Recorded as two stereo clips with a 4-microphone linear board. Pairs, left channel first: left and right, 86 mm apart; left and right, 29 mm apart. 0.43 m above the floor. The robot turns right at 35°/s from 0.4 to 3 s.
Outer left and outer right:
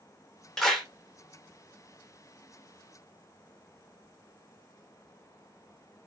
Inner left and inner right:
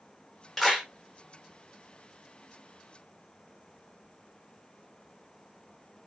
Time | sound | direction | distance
0.6 | a clap | 5° left (ahead or behind) | 0.7 m